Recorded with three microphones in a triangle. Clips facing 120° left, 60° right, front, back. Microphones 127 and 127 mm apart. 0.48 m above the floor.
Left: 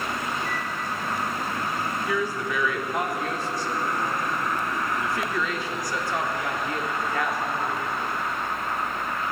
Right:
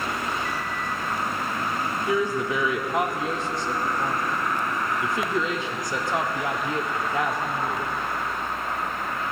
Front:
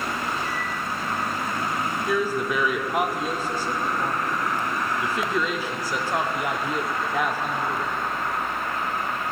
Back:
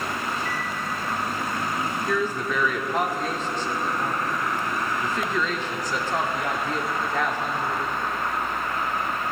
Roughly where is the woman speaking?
Ahead right.